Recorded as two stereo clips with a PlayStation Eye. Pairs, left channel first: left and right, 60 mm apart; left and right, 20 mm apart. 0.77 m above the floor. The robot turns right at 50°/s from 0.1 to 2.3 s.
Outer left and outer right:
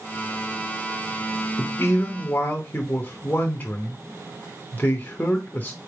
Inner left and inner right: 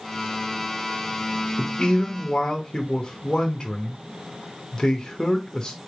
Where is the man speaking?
95° left, 0.9 m; by 5.8 s 130° left, 0.9 m.